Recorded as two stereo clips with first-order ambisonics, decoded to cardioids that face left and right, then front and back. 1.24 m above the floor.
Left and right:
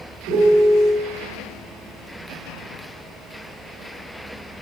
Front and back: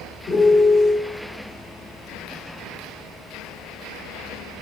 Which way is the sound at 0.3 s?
55° right.